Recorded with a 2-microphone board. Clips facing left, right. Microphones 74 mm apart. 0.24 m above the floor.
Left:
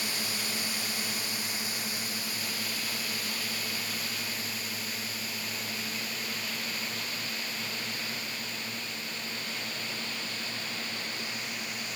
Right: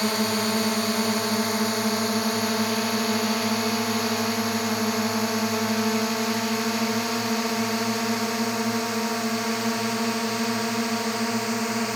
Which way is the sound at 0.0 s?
60° right (ahead or behind).